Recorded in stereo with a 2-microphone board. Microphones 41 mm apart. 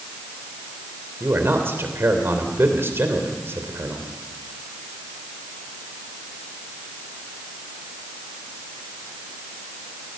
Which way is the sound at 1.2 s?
65° right (ahead or behind).